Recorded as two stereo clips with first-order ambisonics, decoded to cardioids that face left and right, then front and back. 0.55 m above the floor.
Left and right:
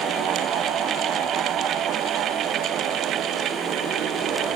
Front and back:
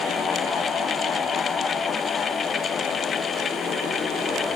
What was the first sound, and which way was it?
Only background noise.